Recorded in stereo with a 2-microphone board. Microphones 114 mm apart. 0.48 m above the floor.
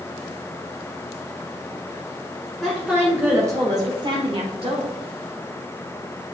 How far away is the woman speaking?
About 1.4 m.